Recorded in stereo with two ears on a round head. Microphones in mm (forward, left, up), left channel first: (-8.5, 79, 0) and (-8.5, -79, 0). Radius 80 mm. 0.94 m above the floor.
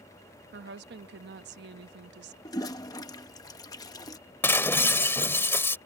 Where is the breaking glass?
15° left (ahead or behind).